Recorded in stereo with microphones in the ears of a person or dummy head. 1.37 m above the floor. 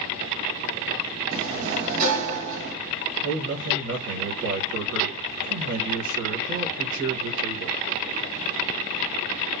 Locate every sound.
1.3 s a sliding door: 50° right (ahead or behind), 1.3 m
3.2 s a man speaking: 60° right (ahead or behind), 1.0 m